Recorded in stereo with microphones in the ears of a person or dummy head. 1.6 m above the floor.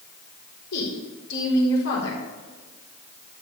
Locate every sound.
0.7 s a woman speaking: 75° left (ahead or behind), 4 m